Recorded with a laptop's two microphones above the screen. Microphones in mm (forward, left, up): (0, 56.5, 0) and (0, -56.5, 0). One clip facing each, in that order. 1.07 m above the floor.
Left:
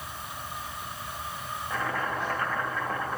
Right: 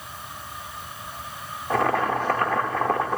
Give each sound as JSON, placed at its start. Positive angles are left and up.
{"t": 1.7, "sound": "boiling", "side_deg": -70, "distance_m": 1.2}